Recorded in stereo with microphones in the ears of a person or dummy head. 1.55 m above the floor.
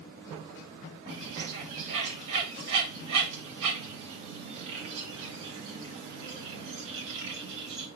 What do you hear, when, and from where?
1.1 s a bird: 65° right (ahead or behind), 2 m